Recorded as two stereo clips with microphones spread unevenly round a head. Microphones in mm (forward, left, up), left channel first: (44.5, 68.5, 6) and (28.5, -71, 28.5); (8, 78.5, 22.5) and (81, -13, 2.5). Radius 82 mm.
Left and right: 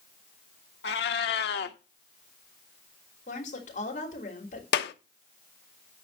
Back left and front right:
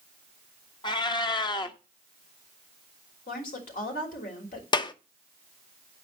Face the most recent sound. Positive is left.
turn(degrees=80)